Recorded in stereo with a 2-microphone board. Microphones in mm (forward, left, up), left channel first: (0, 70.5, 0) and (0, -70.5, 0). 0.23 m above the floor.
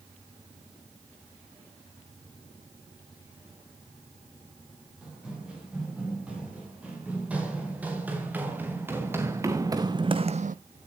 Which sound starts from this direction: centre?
Running footsteps, at 5.0 s.